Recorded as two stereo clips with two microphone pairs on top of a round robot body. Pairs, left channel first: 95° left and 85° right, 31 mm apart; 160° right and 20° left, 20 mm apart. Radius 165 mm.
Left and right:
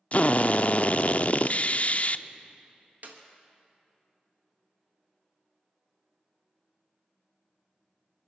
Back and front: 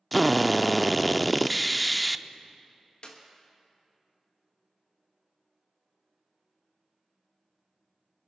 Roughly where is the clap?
Behind right.